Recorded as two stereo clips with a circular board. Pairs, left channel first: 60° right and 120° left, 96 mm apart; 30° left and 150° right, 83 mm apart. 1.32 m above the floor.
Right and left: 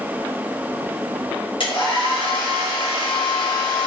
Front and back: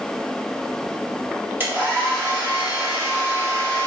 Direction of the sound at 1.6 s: 85° right.